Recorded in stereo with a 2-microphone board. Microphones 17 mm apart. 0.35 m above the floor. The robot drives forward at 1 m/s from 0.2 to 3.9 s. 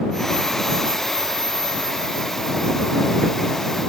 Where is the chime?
I don't hear a chime.